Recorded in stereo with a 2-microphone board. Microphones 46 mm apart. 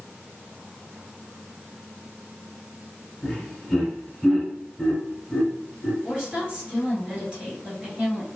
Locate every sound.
3.2 s laughter: 15° left (ahead or behind), 1.3 m
6.0 s a woman speaking: 25° right (ahead or behind), 1.9 m